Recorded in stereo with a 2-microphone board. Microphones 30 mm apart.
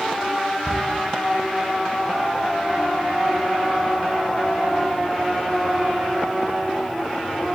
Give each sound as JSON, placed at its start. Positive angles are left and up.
{"t": 0.7, "sound": "a cupboard door", "side_deg": 75, "distance_m": 5.5}